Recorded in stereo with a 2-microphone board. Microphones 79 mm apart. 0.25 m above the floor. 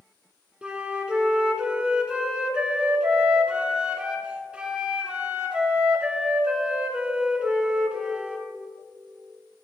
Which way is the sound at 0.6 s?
15° right (ahead or behind).